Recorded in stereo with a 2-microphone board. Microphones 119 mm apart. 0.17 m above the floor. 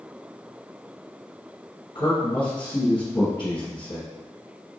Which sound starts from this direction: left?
A man speaking, at 1.9 s.